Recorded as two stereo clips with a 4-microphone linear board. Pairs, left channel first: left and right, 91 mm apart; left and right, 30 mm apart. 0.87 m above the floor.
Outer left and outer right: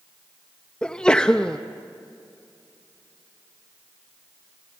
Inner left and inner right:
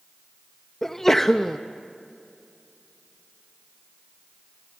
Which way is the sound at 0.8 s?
10° left (ahead or behind).